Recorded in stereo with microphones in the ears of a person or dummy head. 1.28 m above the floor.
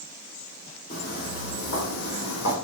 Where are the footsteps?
50° left (ahead or behind), 2.5 m; by 2.5 s 60° left (ahead or behind), 3 m.